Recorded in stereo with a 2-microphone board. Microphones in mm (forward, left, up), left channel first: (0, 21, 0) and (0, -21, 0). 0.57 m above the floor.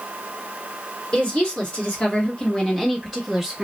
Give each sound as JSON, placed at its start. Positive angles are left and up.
{"t": 1.1, "sound": "a woman speaking", "side_deg": 35, "distance_m": 1.5}